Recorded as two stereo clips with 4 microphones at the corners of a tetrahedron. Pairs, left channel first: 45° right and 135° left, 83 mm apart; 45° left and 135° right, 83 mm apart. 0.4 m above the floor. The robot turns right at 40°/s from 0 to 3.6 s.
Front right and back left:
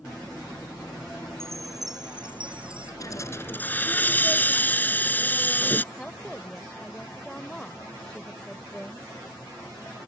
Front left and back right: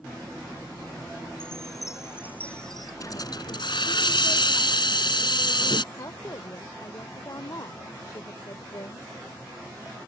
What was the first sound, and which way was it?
A chime, 75° left.